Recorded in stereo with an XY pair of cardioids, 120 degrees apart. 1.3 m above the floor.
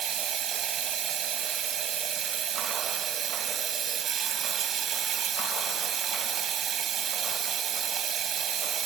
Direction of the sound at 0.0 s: 55° right.